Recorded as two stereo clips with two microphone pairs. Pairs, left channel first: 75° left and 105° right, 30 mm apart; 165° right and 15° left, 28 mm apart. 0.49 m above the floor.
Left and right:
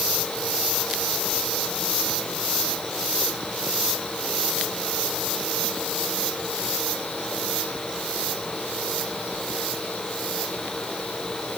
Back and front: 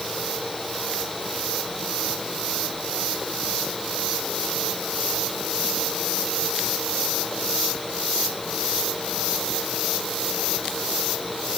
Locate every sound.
Only background noise.